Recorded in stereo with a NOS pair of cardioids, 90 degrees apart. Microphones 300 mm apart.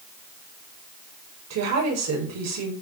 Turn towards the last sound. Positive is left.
turn(degrees=-60)